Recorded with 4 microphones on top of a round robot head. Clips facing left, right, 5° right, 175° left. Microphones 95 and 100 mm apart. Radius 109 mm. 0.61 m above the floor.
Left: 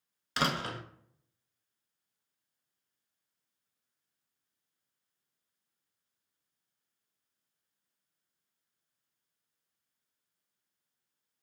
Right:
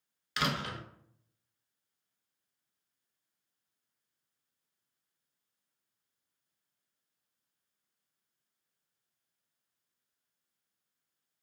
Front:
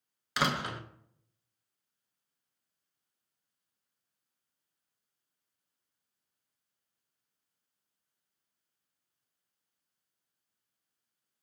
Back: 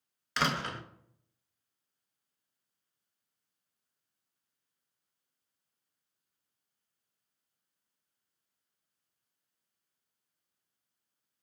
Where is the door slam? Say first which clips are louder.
Left 2 dB, front 1 dB; 70° left, 0.6 m.